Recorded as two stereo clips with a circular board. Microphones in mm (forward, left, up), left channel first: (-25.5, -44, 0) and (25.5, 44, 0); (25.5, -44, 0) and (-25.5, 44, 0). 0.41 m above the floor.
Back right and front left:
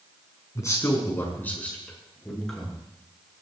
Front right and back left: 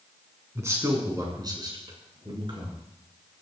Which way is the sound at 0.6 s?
Straight behind.